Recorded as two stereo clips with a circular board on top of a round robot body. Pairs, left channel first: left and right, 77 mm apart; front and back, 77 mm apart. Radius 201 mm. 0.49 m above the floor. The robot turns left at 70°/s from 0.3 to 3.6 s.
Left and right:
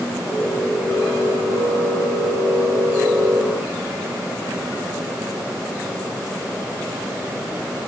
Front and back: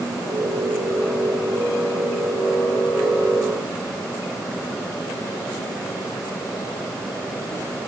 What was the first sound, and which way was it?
Only background noise.